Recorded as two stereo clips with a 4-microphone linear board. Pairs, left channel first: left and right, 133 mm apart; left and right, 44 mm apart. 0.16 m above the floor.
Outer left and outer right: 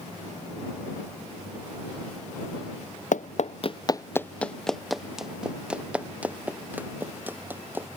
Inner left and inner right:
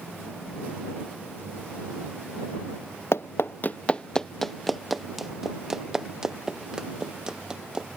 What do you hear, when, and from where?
3.1 s running footsteps: 80° left; by 7.9 s 15° right (ahead or behind)